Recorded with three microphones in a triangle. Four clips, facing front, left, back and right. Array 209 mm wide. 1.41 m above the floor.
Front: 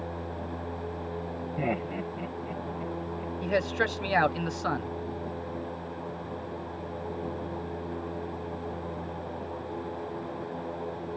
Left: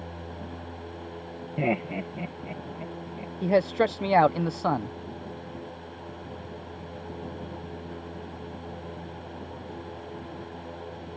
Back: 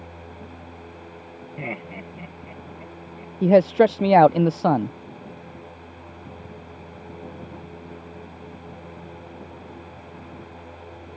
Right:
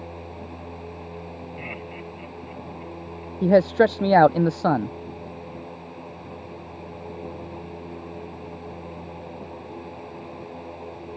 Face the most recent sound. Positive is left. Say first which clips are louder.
# right 6 dB, back 13 dB
turn(degrees=-140)